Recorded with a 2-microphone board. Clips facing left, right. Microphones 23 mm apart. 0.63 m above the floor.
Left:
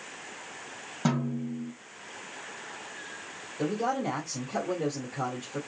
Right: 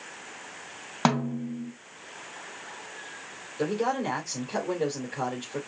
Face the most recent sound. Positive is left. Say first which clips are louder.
# right 2 dB
turn(degrees=-45)  # may be behind; listen again after turning